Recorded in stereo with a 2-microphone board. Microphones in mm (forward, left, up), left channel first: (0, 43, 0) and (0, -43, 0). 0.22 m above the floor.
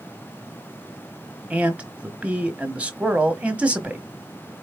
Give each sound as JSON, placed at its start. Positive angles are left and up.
{"t": 1.5, "sound": "a man speaking", "side_deg": -15, "distance_m": 1.1}